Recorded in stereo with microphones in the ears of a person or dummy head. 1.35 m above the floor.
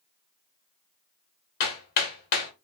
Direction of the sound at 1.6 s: 55° left (ahead or behind).